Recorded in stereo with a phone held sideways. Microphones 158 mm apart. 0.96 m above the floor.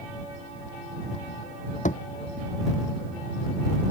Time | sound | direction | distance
1.9 | a thud | 60° left (ahead or behind) | ?